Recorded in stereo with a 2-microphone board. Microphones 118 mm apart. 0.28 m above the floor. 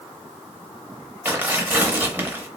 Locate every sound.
1.2 s tearing paper: 15° right (ahead or behind), 0.7 m